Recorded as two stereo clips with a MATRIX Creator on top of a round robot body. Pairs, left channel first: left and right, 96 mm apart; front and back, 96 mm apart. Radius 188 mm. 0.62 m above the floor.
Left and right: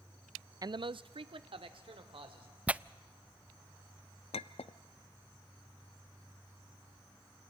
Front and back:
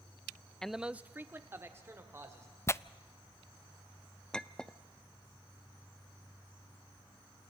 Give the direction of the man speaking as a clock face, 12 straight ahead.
3 o'clock.